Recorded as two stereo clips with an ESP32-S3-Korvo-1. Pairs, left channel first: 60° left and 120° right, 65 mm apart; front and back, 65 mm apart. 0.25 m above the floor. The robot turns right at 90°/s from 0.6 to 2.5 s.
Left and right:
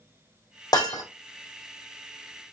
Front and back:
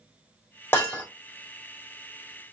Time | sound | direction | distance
0.7 | breaking glass | 55° left | 2.5 m